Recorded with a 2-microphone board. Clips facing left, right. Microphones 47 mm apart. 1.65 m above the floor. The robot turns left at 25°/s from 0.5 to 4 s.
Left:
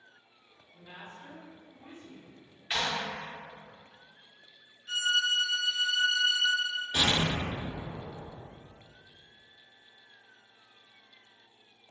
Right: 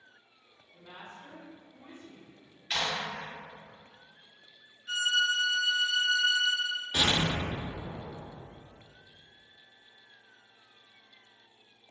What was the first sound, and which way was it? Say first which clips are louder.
A woman speaking: even; 165° right.